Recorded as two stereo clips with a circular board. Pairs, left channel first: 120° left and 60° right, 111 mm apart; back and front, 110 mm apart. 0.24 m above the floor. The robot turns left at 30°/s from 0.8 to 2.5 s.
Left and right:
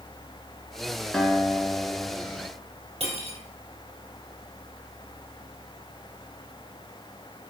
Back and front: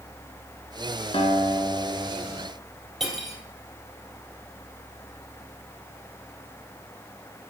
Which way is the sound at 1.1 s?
155° right.